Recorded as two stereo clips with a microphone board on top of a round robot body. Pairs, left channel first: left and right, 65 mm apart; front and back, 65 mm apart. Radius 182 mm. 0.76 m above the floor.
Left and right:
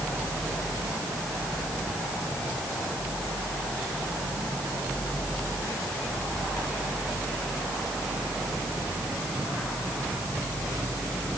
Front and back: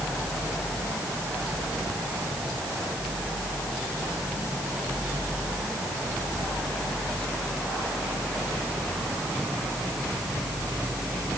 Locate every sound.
Only background noise.